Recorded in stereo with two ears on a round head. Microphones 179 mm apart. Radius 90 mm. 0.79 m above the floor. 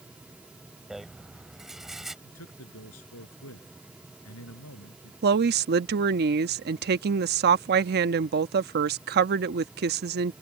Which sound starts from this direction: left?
A man speaking, at 2.2 s.